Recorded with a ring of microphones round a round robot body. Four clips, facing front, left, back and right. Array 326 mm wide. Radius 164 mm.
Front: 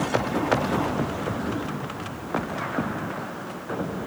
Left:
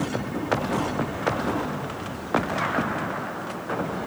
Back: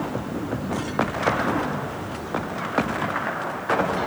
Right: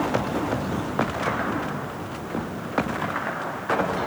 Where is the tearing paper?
No tearing paper in this recording.